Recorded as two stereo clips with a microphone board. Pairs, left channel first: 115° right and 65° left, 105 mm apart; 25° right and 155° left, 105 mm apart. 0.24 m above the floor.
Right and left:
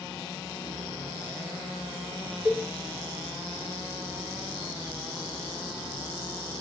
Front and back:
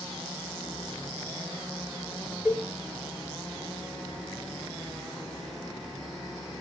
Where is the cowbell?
90° left, 1.6 m.